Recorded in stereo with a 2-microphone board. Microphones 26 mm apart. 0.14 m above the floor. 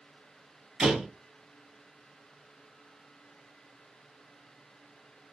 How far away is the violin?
No violin in this recording.